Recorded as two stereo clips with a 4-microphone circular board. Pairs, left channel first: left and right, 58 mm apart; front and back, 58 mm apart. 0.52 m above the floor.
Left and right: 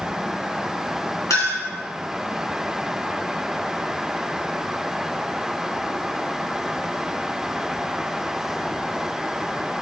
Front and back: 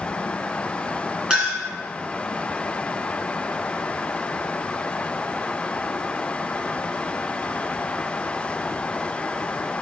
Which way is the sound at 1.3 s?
100° left.